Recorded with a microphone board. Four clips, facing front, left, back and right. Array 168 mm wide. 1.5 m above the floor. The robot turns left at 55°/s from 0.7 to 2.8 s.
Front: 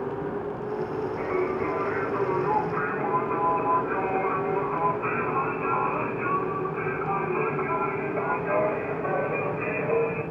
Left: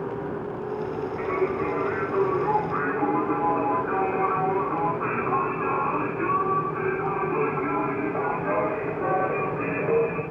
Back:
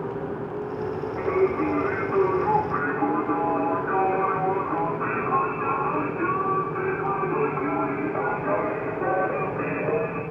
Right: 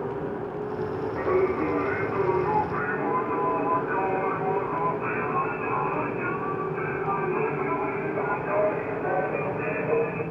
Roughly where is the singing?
Behind right.